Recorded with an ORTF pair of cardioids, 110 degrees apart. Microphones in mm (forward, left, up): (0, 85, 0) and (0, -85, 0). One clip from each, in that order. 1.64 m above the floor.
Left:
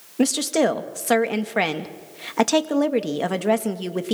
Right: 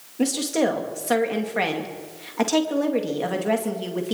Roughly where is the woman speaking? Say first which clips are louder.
Left 2 dB; ahead left.